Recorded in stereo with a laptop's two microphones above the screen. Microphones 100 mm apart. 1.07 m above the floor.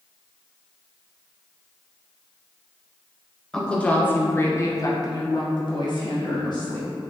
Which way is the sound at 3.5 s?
10° left (ahead or behind).